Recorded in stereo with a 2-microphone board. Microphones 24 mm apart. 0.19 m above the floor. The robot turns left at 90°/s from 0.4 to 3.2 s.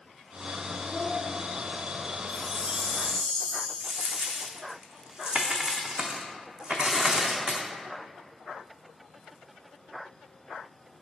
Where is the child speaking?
45° left, 1.7 m; by 1.2 s 15° left, 1.7 m.